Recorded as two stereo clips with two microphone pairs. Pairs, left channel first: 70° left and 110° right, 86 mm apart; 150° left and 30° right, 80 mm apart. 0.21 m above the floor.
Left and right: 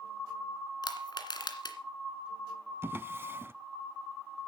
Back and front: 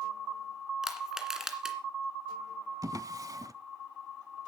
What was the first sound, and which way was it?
Crushing, 50° left.